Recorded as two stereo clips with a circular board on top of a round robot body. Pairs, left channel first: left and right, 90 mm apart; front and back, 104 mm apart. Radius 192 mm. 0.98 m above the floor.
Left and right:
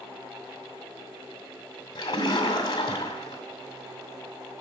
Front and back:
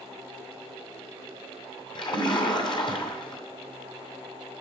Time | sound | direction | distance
1.9 | a splash | 45° left | 2 m